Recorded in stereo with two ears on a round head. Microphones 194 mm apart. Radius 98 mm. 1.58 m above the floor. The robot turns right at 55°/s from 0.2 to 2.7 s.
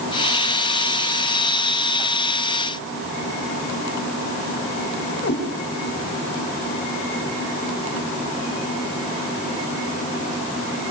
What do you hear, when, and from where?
5.2 s a cat meowing: 60° left (ahead or behind), 4.5 m